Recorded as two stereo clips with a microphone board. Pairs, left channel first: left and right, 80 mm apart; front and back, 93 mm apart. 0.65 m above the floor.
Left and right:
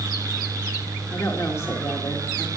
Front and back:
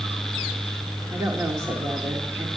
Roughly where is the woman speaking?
Behind left.